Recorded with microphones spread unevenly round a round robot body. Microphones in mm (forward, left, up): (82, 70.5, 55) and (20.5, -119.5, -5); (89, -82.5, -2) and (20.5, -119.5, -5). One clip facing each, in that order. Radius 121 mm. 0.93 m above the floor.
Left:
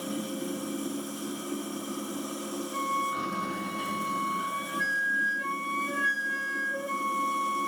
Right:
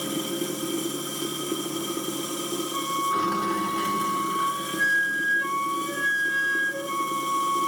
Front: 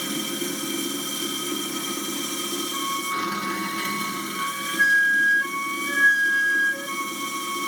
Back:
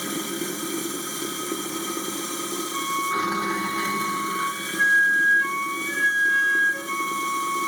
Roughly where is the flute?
Ahead right.